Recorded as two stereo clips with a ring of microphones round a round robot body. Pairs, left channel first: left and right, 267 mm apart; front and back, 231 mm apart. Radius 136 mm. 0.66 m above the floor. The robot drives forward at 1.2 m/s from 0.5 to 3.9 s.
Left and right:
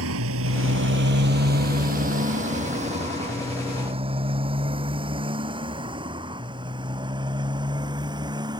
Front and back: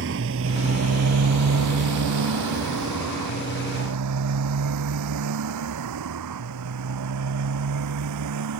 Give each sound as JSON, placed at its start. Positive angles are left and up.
{"t": 0.0, "sound": "a motorcycle", "azimuth_deg": -130}